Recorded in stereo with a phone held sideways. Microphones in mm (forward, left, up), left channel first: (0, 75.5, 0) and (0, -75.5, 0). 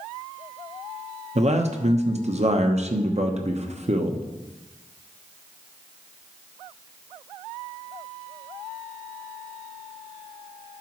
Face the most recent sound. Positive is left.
turn(degrees=-50)  # may be behind; listen again after turning